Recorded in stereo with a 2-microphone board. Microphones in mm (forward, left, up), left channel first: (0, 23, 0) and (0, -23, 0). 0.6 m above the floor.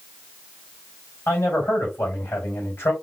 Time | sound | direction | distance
1.3 | a man speaking | 55° left (ahead or behind) | 3.5 m